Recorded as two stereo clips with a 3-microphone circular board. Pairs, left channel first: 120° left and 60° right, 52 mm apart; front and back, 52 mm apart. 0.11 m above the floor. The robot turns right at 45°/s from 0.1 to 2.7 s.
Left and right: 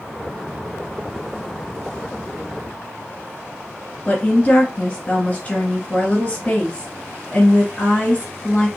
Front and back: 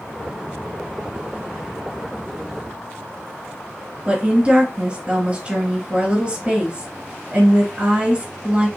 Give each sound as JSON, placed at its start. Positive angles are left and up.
{"t": 4.0, "sound": "a woman speaking", "azimuth_deg": 145, "distance_m": 1.7}